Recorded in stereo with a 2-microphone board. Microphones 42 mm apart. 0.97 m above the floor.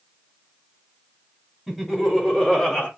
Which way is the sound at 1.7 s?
Centre (ahead or behind).